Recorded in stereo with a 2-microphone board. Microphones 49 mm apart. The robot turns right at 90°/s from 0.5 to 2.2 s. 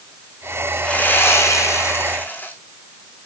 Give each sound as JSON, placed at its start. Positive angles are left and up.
{"t": 0.8, "sound": "sawing", "azimuth_deg": 20, "distance_m": 1.9}